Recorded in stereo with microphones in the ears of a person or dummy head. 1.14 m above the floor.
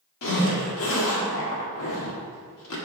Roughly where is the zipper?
Left.